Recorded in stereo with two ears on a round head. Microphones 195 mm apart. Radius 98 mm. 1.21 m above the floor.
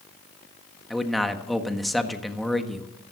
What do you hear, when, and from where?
0.9 s a man speaking: centre (ahead or behind), 1.4 m